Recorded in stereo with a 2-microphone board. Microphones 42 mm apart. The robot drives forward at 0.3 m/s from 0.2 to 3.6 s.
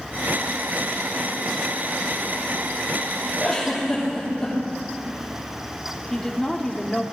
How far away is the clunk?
I don't hear a clunk.